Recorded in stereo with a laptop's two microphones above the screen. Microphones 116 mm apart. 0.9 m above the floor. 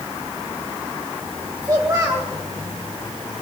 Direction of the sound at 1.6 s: 30° right (ahead or behind).